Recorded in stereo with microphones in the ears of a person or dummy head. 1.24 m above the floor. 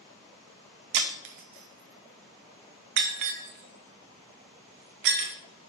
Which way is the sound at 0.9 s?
60° right (ahead or behind).